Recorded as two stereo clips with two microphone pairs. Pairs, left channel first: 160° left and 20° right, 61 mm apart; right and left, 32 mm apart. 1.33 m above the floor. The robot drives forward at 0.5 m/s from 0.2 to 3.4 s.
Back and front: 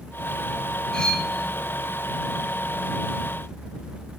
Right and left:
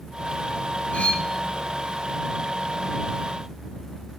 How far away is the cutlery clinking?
About 1.1 m.